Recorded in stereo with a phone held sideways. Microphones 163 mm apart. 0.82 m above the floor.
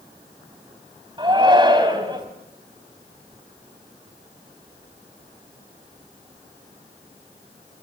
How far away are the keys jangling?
No keys jangling in this recording.